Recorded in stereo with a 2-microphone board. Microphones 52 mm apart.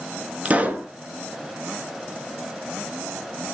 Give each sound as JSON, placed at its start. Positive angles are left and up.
{"t": 0.5, "sound": "a pop", "side_deg": -30, "distance_m": 1.2}